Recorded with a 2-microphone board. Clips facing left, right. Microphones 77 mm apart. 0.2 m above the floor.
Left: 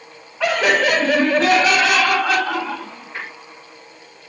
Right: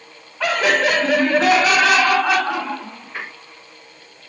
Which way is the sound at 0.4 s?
Centre (ahead or behind).